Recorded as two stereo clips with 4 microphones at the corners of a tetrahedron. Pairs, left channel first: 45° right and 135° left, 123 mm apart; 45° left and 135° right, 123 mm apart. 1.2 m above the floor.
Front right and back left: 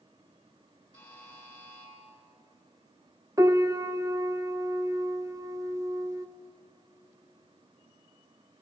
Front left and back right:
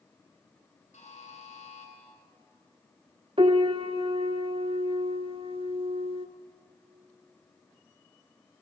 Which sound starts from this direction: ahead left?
A buzzer, at 0.9 s.